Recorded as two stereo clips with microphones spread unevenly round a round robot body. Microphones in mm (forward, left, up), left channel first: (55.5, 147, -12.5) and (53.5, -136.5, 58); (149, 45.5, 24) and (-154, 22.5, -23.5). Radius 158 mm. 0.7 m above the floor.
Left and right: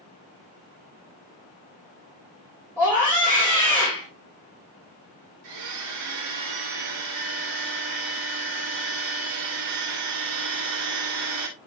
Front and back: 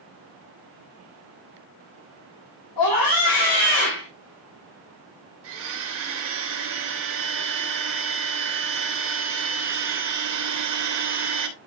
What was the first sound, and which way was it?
A scream, 10° left.